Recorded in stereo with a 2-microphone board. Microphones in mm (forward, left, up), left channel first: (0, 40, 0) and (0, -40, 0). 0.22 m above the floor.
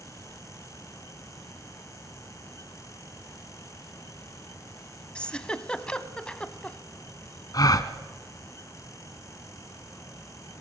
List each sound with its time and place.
5.2 s a giggle: 15° left (ahead or behind), 0.8 m
7.5 s a gasp: 50° left (ahead or behind), 1.0 m